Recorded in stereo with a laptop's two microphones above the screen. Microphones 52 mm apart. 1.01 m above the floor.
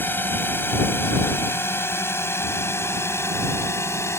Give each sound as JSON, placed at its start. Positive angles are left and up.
{"t": 0.0, "sound": "a drone", "side_deg": 40}